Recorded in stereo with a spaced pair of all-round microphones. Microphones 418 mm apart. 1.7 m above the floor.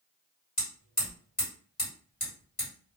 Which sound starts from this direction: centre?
Hammering, at 0.6 s.